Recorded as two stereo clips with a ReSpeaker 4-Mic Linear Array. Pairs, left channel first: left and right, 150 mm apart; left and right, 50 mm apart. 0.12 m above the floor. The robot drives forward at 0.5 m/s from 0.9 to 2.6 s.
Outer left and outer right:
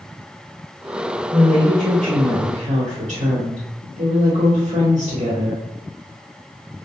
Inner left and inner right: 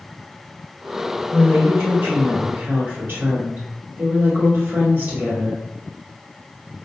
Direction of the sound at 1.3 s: 35° right (ahead or behind).